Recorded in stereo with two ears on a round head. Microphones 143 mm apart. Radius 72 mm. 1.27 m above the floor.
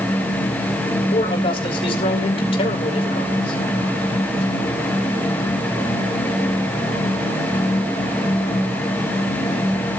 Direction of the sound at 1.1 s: 35° left (ahead or behind).